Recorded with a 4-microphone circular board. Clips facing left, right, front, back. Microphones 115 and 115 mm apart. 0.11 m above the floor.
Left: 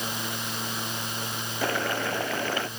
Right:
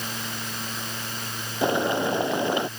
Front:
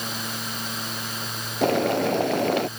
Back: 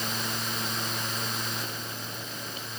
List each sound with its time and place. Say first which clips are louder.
1.6 s boiling: right 6 dB, front 18 dB; 20° right